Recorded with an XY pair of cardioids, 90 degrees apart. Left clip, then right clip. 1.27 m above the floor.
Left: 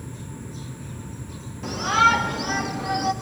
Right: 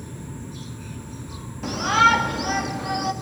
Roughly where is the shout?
Ahead right.